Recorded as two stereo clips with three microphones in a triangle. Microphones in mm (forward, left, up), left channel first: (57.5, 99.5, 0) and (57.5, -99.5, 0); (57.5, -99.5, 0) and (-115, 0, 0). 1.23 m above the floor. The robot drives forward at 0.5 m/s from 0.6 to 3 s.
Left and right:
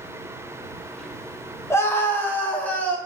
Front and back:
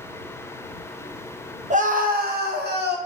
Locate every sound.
1.7 s a scream: 155° left, 0.6 m; by 3.0 s 170° left, 1.1 m